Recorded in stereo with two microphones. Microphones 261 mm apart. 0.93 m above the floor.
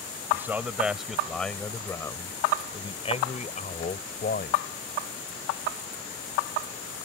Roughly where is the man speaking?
Centre.